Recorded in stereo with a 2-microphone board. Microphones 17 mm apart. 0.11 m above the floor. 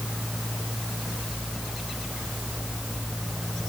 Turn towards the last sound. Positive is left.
No sound to turn to.